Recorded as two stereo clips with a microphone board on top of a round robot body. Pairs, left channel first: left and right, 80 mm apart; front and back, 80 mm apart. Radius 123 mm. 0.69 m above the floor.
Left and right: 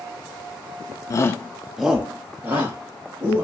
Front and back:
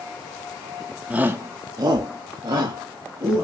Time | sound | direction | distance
1.1 | a shout | 110° left | 0.6 m